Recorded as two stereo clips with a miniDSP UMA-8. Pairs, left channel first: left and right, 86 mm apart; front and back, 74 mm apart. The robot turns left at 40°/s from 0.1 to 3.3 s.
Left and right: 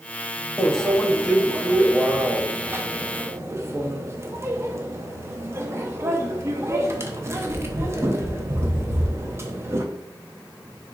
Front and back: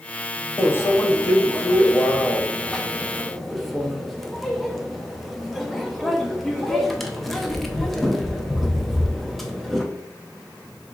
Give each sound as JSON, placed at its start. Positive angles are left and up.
{"t": 0.6, "sound": "a microwave", "azimuth_deg": 20, "distance_m": 0.5}